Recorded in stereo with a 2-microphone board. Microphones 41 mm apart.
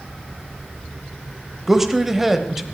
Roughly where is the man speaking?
Centre.